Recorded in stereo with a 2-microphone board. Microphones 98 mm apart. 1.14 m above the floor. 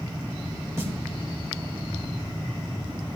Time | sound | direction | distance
0.8 | a snare drum | 30° right (ahead or behind) | 3.5 m